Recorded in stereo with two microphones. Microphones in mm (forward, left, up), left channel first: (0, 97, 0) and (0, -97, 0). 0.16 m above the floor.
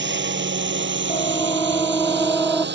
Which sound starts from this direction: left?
A siren, at 1.1 s.